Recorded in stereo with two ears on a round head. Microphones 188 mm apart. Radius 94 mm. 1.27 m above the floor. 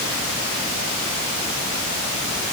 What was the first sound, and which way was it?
Only background noise.